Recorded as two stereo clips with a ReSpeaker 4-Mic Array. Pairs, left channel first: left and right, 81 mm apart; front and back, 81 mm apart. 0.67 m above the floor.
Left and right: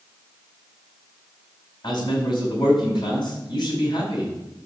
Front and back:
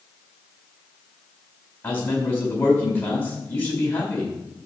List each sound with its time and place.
1.8 s a man speaking: 60° left, 4.5 m